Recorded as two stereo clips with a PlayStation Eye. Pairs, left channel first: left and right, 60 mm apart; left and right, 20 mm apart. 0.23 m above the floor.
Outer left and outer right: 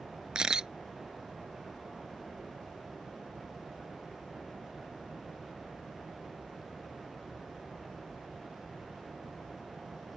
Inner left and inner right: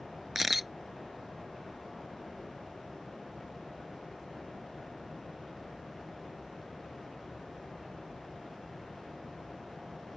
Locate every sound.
0.3 s a camera shutter: 10° right (ahead or behind)